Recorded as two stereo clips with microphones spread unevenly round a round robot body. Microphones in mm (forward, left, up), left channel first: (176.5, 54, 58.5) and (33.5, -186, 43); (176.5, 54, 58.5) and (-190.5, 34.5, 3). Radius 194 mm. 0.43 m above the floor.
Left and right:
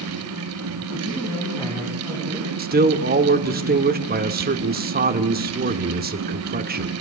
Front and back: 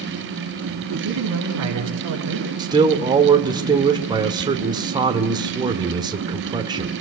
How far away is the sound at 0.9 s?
About 4.5 m.